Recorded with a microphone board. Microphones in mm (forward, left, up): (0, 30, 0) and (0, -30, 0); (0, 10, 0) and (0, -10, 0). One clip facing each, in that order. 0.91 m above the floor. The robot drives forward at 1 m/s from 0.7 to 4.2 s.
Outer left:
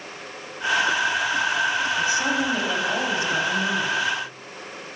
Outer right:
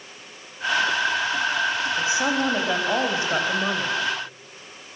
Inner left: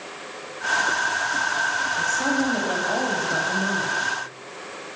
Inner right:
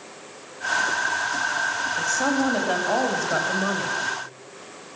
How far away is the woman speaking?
About 5 m.